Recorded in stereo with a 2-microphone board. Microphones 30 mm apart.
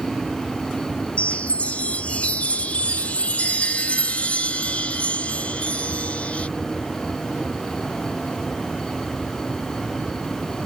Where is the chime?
55° left (ahead or behind).